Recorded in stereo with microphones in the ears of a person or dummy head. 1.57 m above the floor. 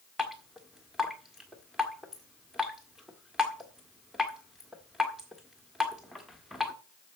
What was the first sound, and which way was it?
Dripping, 5° right (ahead or behind).